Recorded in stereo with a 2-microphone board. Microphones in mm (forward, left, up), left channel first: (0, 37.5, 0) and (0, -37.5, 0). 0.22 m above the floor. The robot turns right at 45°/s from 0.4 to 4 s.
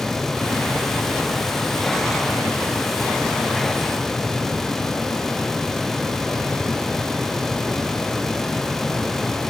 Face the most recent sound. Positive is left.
No sound to turn to.